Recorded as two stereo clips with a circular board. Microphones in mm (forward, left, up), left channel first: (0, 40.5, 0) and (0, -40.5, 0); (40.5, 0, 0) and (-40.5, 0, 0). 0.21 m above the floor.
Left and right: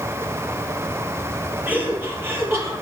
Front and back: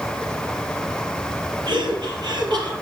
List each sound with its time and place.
1.7 s laughter: 160° right, 5 m; by 2.7 s 150° right, 5.5 m